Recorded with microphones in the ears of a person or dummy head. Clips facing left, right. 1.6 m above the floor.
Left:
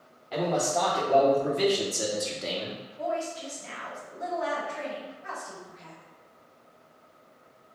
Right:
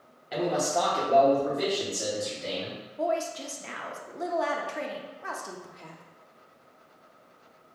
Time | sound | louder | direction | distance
0.3 | a man speaking | even | 15° right (ahead or behind) | 1.3 m
3.0 | a woman speaking | right 3 dB | 60° right (ahead or behind) | 0.7 m